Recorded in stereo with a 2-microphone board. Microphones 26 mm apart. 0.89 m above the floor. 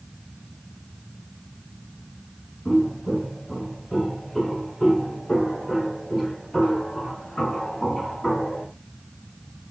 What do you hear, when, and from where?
2.6 s footsteps: centre (ahead or behind), 6 m; by 8.7 s 35° left (ahead or behind), 5.5 m